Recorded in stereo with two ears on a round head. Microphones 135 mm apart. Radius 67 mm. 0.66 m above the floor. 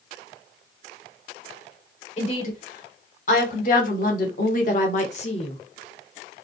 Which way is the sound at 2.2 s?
50° left (ahead or behind).